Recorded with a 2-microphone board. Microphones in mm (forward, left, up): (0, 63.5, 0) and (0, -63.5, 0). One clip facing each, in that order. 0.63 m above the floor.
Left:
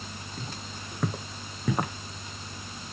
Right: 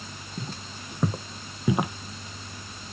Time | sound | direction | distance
0.4 | footsteps | 15° right (ahead or behind) | 1.3 m